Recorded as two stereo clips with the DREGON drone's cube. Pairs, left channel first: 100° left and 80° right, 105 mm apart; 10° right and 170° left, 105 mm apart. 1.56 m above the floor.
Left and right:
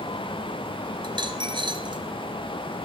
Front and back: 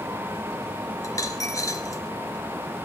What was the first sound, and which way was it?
A dropped coin, 60° right.